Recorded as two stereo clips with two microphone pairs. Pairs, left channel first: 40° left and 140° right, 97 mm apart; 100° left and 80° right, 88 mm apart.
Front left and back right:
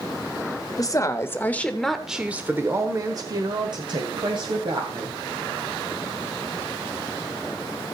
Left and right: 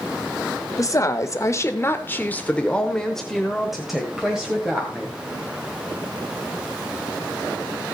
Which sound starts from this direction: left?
A woman speaking, at 0.8 s.